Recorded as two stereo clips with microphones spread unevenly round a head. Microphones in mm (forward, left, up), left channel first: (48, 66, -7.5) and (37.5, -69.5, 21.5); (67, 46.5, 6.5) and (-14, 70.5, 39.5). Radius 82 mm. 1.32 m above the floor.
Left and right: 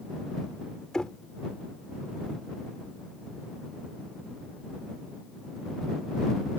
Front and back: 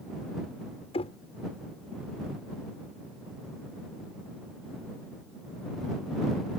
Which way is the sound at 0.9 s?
5° right.